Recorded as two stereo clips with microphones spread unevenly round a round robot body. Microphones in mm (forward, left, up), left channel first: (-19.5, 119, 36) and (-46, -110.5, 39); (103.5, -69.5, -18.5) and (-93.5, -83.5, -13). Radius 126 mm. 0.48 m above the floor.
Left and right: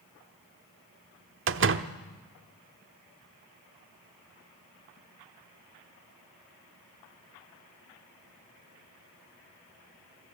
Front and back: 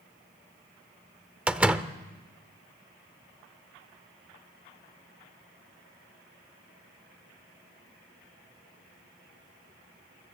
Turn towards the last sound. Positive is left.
turn(degrees=-90)